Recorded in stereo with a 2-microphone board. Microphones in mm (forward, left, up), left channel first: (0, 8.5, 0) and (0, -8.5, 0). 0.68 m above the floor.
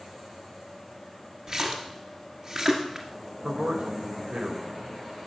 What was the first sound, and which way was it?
A splash, 35° right (ahead or behind).